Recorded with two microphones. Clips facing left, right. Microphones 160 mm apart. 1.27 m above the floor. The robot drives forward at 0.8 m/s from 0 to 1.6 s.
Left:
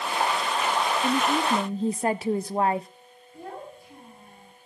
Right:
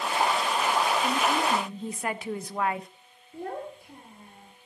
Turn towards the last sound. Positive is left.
turn(degrees=-60)  # may be behind; listen again after turning